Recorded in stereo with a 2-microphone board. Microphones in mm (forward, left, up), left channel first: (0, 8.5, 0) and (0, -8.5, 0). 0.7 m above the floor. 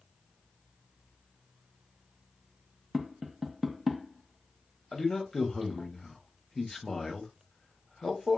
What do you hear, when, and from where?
2.9 s tapping: 20° right (ahead or behind), 0.5 m
4.9 s a man speaking: 35° left (ahead or behind), 0.9 m